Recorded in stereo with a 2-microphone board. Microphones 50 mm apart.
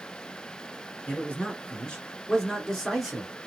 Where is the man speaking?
30° left (ahead or behind), 1.7 m; by 3.3 s centre (ahead or behind), 1.7 m.